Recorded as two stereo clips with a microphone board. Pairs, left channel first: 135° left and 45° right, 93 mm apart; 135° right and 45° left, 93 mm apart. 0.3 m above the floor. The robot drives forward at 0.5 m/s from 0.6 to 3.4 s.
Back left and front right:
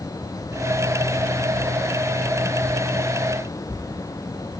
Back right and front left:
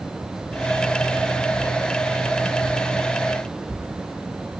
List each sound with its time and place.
Only background noise.